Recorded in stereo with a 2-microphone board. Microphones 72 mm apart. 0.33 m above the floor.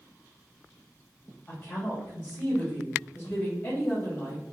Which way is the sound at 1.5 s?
25° left (ahead or behind).